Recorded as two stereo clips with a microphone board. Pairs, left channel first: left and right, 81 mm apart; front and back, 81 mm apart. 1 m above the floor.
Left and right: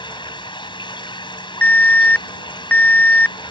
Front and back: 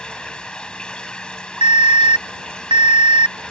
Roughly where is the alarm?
Behind.